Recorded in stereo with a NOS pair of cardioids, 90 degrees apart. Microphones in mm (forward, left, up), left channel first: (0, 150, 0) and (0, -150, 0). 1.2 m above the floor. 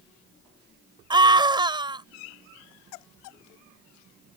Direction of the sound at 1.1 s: 15° right.